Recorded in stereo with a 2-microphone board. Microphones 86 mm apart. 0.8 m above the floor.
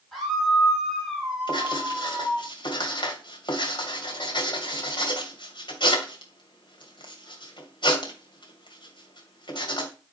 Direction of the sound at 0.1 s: Centre (ahead or behind).